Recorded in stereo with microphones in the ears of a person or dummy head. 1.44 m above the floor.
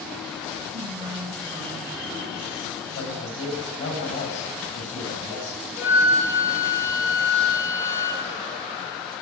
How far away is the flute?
About 4.5 m.